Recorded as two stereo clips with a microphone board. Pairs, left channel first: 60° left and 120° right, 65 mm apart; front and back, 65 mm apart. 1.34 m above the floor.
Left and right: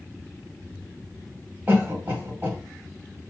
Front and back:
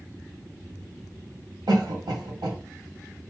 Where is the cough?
Straight behind, 1.6 m.